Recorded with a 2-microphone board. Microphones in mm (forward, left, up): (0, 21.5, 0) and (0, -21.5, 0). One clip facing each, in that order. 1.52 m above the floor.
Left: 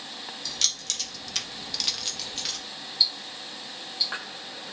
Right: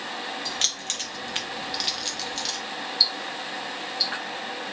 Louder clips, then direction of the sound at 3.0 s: Right 1 dB; 25° left (ahead or behind).